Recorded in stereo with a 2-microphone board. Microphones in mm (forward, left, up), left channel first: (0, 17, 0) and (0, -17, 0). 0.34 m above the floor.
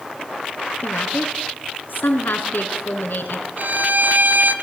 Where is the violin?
60° right (ahead or behind), 2.0 m.